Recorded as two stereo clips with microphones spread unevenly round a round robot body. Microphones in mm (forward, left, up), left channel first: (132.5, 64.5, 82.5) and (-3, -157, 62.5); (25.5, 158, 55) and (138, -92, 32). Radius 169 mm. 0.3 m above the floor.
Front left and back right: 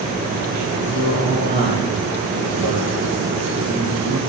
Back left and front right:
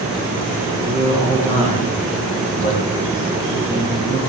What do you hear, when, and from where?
0.8 s a man speaking: 175° right, 10 m